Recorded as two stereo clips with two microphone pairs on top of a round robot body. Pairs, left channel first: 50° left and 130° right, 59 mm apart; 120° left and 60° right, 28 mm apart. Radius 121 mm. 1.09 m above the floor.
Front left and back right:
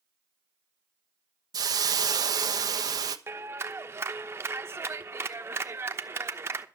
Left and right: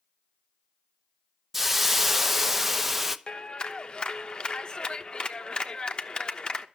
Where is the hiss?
140° right, 1.0 m.